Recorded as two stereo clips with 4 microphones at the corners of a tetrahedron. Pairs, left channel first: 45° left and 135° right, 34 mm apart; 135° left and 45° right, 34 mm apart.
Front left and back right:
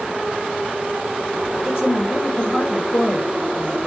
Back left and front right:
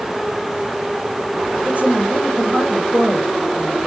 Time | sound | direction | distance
1.6 | a woman speaking | 5° right | 6 m